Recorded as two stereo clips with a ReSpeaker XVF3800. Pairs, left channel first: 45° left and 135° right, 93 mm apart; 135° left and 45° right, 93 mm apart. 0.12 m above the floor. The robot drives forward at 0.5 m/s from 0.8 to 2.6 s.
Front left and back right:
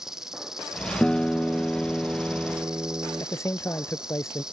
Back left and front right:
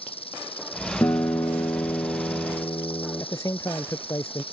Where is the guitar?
120° left; by 3.2 s 155° left.